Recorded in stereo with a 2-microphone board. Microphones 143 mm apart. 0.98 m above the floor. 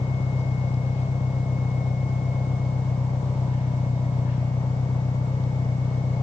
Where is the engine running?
55° left (ahead or behind).